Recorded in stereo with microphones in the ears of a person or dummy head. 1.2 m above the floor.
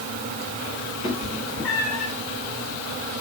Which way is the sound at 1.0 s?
25° left (ahead or behind).